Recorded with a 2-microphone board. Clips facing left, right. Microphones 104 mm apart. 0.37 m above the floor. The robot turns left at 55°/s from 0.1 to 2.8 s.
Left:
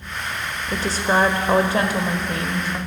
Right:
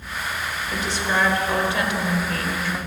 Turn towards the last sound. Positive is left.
turn(degrees=15)